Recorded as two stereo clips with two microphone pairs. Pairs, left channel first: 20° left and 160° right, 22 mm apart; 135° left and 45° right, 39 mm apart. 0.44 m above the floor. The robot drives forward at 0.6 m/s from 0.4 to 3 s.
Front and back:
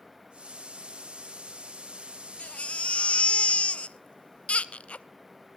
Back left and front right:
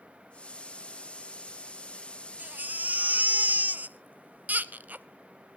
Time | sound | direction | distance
2.4 | a baby crying | straight ahead | 1.0 m